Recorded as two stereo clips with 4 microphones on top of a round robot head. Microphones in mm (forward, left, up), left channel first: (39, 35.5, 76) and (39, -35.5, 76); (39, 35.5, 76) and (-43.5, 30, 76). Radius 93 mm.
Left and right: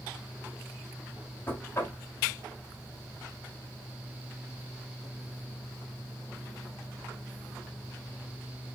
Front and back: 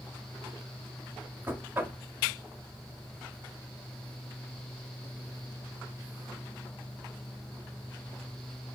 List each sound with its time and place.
1.5 s knocking: 130° left, 1.1 m